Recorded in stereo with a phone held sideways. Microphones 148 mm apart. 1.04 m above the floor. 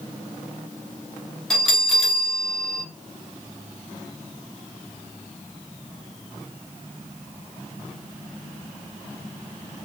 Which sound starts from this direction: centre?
A bell, at 1.5 s.